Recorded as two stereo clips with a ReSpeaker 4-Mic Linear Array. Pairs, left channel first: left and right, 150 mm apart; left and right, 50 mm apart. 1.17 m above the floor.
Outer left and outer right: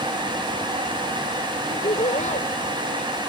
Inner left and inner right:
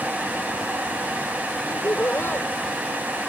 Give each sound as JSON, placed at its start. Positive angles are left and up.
{"t": 1.7, "sound": "laughter", "side_deg": 55}